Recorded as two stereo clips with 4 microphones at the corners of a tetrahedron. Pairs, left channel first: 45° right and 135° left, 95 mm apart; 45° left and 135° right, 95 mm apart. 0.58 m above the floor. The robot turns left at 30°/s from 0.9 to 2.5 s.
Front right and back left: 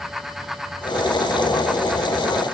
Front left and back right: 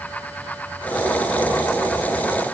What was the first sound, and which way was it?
Only background noise.